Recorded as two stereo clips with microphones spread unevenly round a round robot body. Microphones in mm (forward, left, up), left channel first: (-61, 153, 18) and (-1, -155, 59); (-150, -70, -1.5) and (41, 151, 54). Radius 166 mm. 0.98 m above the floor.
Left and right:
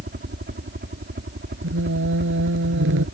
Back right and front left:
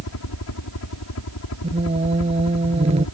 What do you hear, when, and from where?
0.0 s a helicopter: 135° right
1.6 s singing: 25° right